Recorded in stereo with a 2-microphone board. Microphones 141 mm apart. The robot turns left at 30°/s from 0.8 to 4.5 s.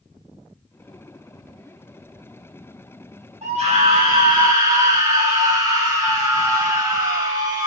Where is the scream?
110° right, 1.9 m; by 7.7 s 145° right, 1.9 m.